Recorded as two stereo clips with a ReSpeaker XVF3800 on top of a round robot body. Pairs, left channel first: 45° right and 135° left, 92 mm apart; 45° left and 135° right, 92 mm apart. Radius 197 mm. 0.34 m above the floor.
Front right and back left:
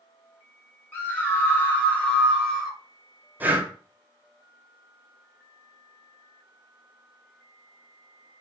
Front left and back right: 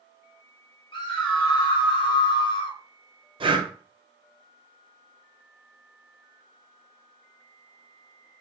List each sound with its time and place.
0.9 s a scream: 20° left, 3 m; by 2.8 s 40° left, 1.9 m
3.4 s breathing: 155° right, 1.0 m